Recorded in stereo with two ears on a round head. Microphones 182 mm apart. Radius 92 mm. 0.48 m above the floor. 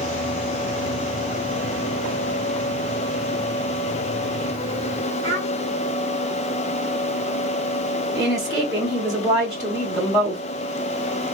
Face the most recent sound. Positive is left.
turn(degrees=5)  # may be behind; listen again after turning